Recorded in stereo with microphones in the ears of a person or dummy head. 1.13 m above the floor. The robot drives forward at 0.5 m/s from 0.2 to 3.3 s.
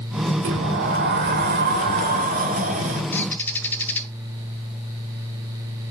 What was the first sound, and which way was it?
A sliding door, 60° right (ahead or behind).